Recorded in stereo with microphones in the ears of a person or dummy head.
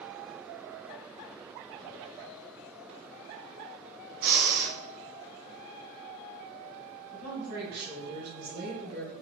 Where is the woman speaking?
55° right (ahead or behind), 1.5 m.